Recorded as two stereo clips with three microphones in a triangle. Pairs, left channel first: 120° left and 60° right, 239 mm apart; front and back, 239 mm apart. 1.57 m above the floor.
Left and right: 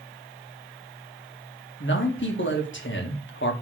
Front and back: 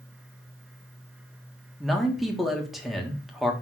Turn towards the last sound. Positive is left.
turn(degrees=90)